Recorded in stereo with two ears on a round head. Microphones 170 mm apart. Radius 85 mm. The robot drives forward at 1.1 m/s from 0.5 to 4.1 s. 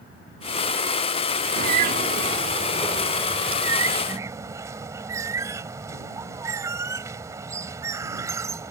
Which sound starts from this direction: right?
A bird, at 1.6 s.